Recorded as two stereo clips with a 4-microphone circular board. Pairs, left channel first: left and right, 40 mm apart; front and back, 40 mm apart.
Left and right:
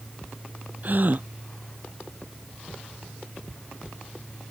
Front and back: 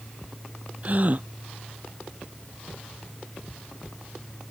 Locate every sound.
0.8 s a gasp: 130° right